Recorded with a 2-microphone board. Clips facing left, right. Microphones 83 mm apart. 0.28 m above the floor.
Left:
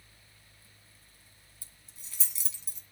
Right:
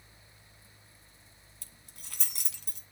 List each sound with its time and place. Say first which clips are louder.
1.6 s keys jangling: right 5 dB; 65° right (ahead or behind), 1.9 m